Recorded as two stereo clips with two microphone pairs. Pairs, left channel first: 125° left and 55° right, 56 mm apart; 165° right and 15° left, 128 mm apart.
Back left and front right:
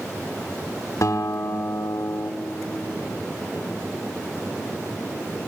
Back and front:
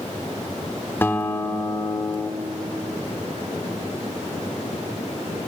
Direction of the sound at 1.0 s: 125° left.